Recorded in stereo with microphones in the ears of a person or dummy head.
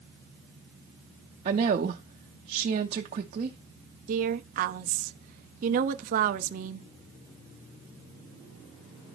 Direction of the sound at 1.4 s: 30° right (ahead or behind).